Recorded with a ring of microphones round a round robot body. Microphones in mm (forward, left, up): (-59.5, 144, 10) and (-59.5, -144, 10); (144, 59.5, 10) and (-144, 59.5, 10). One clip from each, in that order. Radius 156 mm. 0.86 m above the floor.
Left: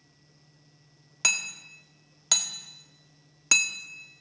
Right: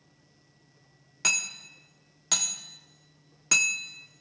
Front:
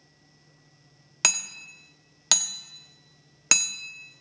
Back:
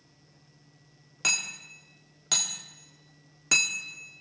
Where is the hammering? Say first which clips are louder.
Left 1 dB, front 1 dB; 20° left, 1.6 m.